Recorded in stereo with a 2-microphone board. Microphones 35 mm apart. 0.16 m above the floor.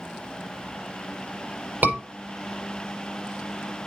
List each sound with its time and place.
1.8 s a scream: 65° right (ahead or behind), 6 m